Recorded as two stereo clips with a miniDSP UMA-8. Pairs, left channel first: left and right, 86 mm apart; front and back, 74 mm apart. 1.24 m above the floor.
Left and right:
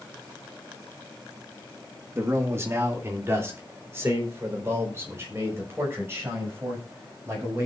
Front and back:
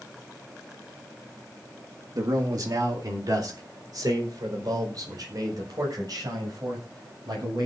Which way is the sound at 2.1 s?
145° right.